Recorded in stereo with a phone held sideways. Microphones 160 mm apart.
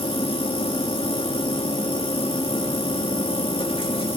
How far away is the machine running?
About 2.5 m.